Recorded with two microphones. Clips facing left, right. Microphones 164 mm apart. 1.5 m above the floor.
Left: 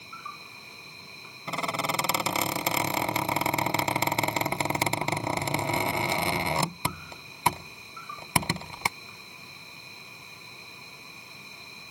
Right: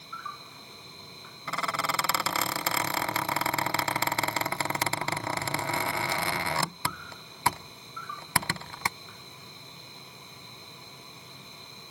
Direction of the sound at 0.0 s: 15° left (ahead or behind).